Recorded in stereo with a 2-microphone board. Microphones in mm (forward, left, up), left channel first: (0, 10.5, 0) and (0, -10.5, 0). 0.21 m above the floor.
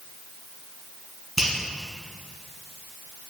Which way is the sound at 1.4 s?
15° right (ahead or behind).